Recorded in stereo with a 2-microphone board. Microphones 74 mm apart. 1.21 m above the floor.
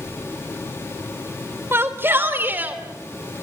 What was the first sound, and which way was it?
A shout, 35° right (ahead or behind).